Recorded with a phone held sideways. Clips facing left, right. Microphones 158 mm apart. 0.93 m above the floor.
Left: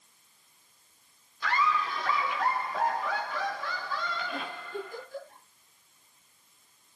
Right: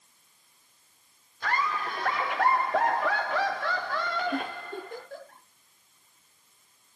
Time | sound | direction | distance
1.4 | laughter | 50° right (ahead or behind) | 2.5 m
4.3 | a giggle | 70° right (ahead or behind) | 10 m